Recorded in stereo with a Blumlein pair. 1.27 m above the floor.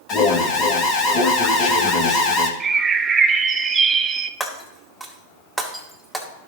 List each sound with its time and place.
0.1 s an alarm: 30° left, 1.8 m
2.6 s a bird: 20° right, 0.9 m
4.4 s breaking glass: straight ahead, 2.0 m